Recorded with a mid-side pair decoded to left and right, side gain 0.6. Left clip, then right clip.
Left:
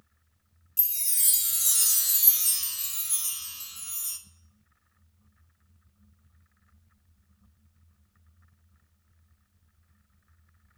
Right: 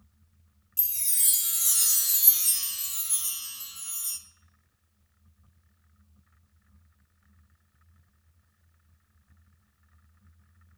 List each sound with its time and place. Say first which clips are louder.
0.8 s a chime: even; 5° left, 0.6 m